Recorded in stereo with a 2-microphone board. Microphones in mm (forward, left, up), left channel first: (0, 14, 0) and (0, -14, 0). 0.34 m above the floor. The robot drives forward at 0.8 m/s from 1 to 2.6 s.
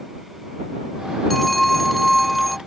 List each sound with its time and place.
1.3 s a phone ringing: 5° left (ahead or behind); by 2.6 s centre (ahead or behind)